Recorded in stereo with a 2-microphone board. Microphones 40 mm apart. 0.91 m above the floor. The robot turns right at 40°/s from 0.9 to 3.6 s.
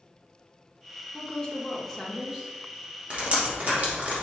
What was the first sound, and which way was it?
A woman speaking, 145° left.